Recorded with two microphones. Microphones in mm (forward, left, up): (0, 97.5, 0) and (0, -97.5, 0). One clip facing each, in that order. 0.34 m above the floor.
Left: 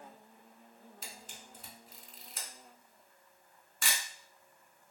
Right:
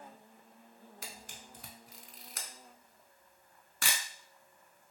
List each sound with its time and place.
1.0 s a camera shutter: 70° right (ahead or behind), 0.7 m